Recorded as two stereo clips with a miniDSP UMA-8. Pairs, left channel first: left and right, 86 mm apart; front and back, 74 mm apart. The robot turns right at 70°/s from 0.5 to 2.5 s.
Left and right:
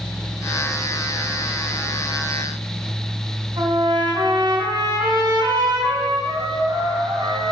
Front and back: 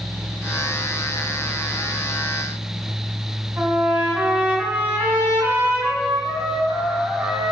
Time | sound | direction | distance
3.6 | a trumpet | 110° right | 2 m